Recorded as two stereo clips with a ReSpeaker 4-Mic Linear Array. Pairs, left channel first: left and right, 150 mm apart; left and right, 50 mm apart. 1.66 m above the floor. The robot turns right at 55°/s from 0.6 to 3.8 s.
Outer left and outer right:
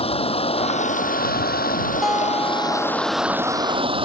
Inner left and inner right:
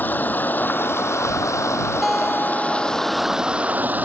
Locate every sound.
0.0 s running water: 40° left; by 4.0 s 145° right
2.0 s a guitar: 175° right; by 3.4 s 100° right